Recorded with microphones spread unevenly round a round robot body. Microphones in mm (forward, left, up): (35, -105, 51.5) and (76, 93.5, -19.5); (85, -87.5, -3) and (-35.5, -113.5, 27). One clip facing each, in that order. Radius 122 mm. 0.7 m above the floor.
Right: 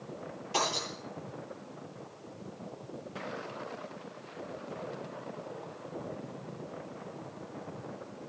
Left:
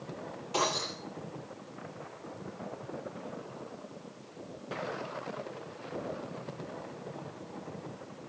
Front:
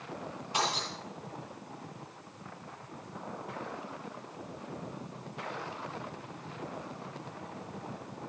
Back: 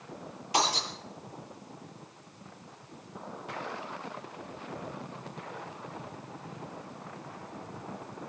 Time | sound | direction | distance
0.5 | breaking glass | 175° left | 10 m